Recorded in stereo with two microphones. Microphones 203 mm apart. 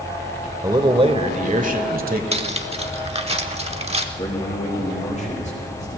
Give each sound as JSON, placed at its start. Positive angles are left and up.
{"t": 0.6, "sound": "a man speaking", "side_deg": -15, "distance_m": 0.9}
{"t": 2.3, "sound": "cutlery clinking", "side_deg": -30, "distance_m": 0.8}
{"t": 4.2, "sound": "a man speaking", "side_deg": 35, "distance_m": 6.5}